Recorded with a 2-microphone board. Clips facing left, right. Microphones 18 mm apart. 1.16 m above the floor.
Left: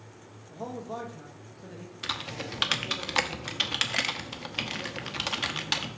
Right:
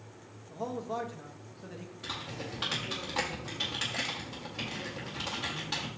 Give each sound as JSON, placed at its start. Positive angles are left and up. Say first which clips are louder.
{"t": 0.5, "sound": "a man speaking", "louder": "right 1 dB", "side_deg": -5, "distance_m": 1.1}
{"t": 2.0, "sound": "typing on a keyboard", "louder": "left 5 dB", "side_deg": 70, "distance_m": 1.0}